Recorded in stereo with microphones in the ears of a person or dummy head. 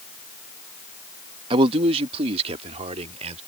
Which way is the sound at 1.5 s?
30° right (ahead or behind).